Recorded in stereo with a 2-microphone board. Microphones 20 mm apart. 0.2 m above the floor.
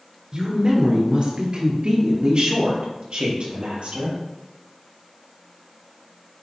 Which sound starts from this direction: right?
A woman speaking, at 0.3 s.